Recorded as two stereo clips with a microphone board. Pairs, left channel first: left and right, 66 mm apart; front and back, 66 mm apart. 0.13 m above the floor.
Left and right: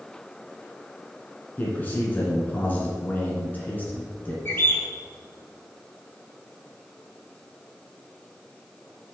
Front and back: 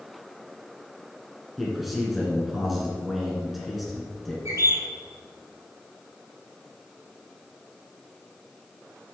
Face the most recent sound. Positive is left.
turn(degrees=140)